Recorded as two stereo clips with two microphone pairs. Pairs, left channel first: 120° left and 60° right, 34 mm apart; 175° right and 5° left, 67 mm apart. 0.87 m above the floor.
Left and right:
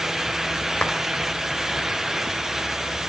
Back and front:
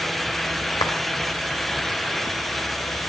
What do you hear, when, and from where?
0.8 s a clap: straight behind, 4 m